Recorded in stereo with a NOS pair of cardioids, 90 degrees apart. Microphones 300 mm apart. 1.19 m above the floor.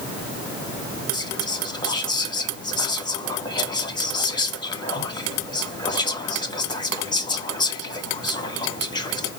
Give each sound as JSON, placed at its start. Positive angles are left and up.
{"t": 1.1, "sound": "whispering", "azimuth_deg": 15, "distance_m": 1.5}